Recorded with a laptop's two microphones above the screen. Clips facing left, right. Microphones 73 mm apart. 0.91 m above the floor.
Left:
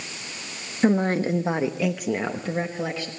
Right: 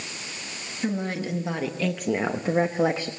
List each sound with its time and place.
0.8 s a woman speaking: 55° left (ahead or behind), 1.2 m; by 3.1 s 40° right (ahead or behind), 1.3 m